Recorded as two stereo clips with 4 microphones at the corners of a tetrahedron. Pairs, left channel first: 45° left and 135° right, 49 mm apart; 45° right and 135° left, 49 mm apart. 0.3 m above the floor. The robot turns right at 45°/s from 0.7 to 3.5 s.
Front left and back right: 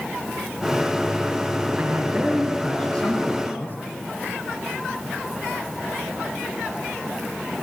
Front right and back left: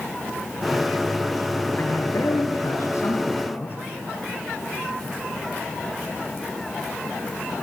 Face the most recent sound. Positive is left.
turn(degrees=0)